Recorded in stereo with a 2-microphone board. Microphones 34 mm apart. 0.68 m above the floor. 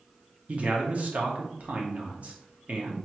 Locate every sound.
0.5 s a man speaking: 45° right (ahead or behind), 0.9 m